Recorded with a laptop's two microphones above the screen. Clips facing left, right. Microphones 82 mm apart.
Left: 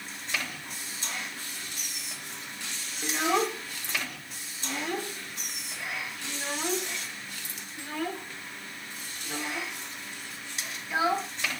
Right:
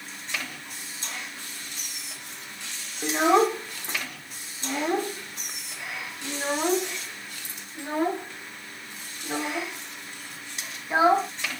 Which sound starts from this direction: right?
A child speaking, at 3.0 s.